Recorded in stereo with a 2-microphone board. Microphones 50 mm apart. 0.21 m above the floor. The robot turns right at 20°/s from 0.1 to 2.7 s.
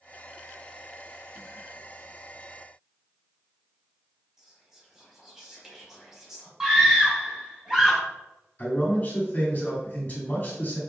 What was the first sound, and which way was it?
Whispering, 5° right (ahead or behind).